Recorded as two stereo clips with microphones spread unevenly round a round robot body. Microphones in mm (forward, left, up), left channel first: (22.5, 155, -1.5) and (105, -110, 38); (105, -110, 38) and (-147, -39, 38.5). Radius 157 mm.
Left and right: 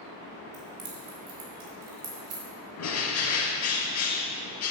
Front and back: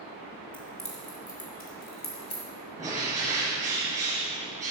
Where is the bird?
85° left, 1.6 m.